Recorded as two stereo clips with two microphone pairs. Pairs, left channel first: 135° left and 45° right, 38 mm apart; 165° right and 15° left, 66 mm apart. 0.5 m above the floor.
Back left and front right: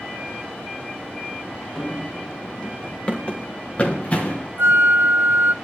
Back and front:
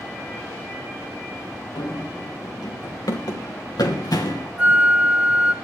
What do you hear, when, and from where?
1.8 s running footsteps: 155° right, 3.5 m; by 4.5 s 175° right, 2.5 m
4.6 s a flute: 55° right, 0.9 m